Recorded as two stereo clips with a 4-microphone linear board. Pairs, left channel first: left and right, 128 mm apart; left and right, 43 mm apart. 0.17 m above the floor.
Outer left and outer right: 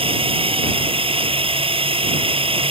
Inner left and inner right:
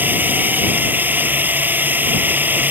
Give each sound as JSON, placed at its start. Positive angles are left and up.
{"t": 0.0, "sound": "a drone", "side_deg": -45}